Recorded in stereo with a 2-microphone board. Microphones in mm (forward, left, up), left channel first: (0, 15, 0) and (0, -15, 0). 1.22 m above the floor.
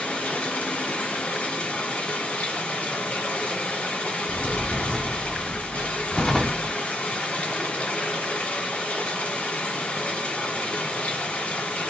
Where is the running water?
60° left (ahead or behind), 2 m.